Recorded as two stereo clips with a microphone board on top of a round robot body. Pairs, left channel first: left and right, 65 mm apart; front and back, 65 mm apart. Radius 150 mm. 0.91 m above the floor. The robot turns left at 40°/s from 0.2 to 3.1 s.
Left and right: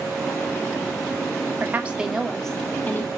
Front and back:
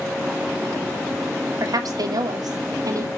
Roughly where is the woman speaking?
Behind right.